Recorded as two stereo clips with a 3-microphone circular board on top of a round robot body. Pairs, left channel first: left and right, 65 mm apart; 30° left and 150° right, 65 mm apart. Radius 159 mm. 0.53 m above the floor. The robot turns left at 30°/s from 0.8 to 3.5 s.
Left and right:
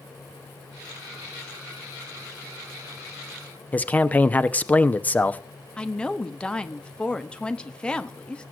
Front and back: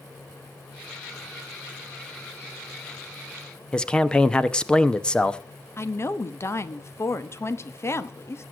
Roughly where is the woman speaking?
Ahead left.